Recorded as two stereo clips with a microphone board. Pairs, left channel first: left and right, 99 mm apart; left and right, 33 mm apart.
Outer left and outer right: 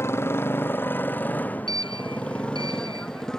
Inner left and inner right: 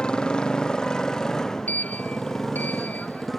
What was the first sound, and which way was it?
A motorcycle, 25° left (ahead or behind).